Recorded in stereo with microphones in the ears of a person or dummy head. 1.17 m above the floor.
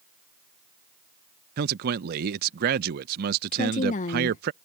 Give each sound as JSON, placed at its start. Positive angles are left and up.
{"t": 1.6, "sound": "a man speaking", "side_deg": -55}
{"t": 3.5, "sound": "a woman speaking", "side_deg": 40}